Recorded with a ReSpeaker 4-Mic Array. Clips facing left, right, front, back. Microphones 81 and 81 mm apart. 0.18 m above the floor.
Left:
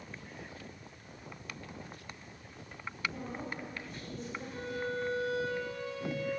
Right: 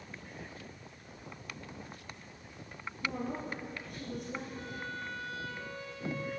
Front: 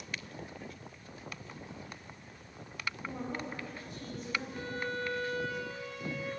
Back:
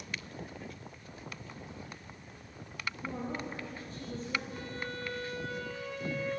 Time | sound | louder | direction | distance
3.0 | a woman speaking | right 3 dB, back 2 dB | 125° right | 7.5 m
4.5 | a violin | left 5 dB, front 3 dB | 80° left | 7.5 m